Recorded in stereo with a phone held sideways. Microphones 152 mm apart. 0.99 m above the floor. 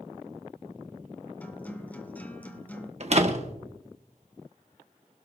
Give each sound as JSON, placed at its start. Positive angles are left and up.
{"t": 1.4, "sound": "a guitar", "side_deg": 10, "distance_m": 1.5}
{"t": 3.0, "sound": "a door slam", "side_deg": -45, "distance_m": 1.5}